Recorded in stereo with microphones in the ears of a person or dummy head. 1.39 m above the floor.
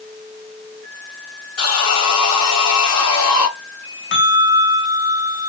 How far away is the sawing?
About 4.5 m.